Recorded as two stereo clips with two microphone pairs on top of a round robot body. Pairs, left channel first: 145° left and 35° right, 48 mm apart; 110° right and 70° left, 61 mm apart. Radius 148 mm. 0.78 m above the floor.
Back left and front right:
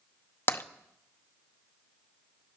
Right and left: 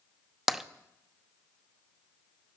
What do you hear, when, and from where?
0.5 s tapping: 145° left, 0.9 m